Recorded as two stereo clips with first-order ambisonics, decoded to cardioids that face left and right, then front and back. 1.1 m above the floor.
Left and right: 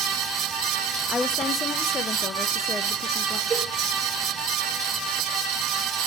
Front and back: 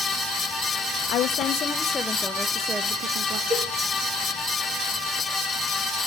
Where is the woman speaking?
25° left, 0.9 m; by 3.4 s 165° left, 0.8 m.